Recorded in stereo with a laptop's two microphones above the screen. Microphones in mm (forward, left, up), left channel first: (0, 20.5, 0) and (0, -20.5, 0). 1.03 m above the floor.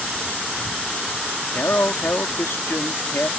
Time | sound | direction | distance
1.5 | a man speaking | 80° left | ?